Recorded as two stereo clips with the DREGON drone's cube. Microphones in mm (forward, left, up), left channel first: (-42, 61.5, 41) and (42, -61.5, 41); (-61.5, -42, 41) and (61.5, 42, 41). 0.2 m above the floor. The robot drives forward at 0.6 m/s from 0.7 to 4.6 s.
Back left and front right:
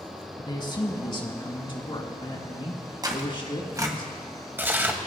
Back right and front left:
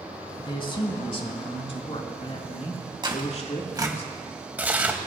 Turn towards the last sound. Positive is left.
turn(degrees=-15)